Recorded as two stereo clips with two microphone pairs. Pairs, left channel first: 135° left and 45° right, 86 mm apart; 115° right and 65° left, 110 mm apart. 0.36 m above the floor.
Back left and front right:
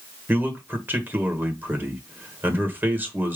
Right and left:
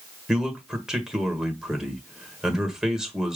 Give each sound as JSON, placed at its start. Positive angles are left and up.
{"t": 0.3, "sound": "a man speaking", "azimuth_deg": -15, "distance_m": 1.3}